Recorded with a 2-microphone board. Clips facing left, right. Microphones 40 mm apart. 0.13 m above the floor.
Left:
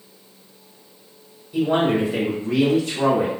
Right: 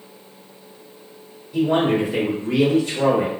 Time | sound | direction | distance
1.5 | a man speaking | 10° left (ahead or behind) | 1.0 m